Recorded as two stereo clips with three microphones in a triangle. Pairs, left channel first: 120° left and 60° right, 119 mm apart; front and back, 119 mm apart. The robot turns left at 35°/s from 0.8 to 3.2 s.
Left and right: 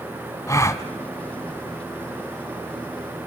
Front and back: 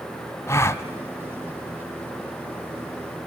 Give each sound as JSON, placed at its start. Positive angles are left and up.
{"t": 0.5, "sound": "a gasp", "azimuth_deg": 65, "distance_m": 0.9}